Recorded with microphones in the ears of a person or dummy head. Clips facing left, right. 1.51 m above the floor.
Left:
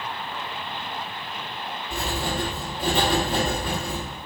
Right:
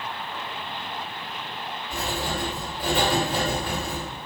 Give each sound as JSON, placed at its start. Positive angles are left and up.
{"t": 1.9, "sound": "writing", "side_deg": 25, "distance_m": 2.0}